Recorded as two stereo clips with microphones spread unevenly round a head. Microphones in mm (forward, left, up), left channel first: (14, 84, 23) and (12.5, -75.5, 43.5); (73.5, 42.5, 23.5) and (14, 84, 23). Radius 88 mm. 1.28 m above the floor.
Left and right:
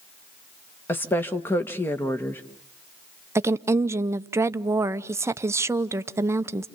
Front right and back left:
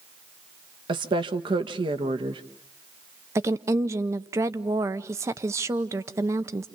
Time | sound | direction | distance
0.9 | a woman speaking | 165° left | 1.2 m
3.4 | a woman speaking | 165° right | 0.7 m